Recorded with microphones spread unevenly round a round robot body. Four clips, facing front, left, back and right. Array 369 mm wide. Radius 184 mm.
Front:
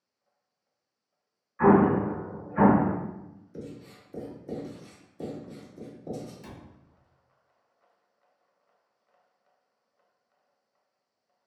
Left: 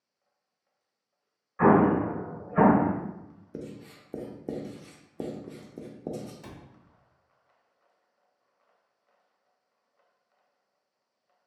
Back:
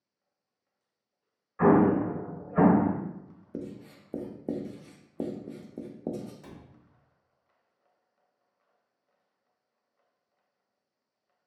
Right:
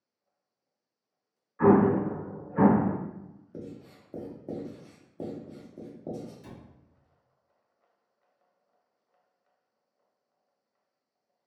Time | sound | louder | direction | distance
1.6 | an explosion | even, front 1 dB | 115° left | 1.3 m
3.5 | writing | left 2 dB, back 3 dB | 130° left | 0.6 m
6.4 | a cupboard door | left 1 dB, front 2 dB | 85° left | 1.0 m